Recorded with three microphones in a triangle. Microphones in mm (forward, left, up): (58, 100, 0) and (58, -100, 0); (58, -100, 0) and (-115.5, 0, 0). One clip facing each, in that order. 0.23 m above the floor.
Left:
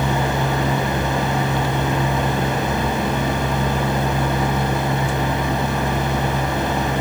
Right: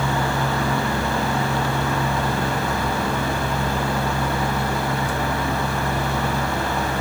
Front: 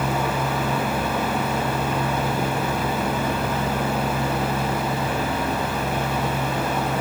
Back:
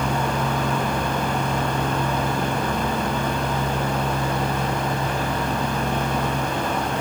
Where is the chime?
I don't hear a chime.